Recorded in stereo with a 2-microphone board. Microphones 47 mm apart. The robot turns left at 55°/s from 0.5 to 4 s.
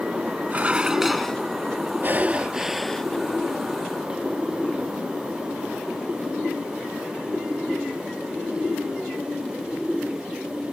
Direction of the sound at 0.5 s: 145° right.